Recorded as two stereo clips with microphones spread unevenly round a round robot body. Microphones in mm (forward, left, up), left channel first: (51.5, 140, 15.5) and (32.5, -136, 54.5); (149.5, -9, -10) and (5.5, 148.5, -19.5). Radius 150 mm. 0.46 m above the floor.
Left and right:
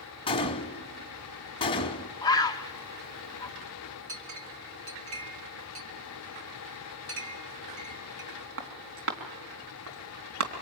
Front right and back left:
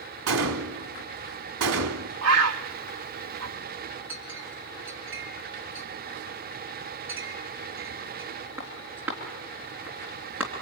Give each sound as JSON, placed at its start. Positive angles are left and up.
{"t": 0.3, "sound": "a gunshot", "azimuth_deg": 160, "distance_m": 0.9}
{"t": 2.2, "sound": "a bird", "azimuth_deg": 165, "distance_m": 0.8}
{"t": 4.1, "sound": "a clink", "azimuth_deg": -145, "distance_m": 3.0}